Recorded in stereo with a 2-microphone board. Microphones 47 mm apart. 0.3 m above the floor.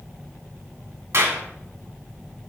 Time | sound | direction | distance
1.1 | a clap | 65° right (ahead or behind) | 1.8 m